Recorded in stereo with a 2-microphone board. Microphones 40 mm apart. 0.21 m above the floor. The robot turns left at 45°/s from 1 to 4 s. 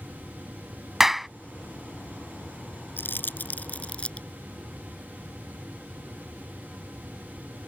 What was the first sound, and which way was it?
A clap, 10° right (ahead or behind).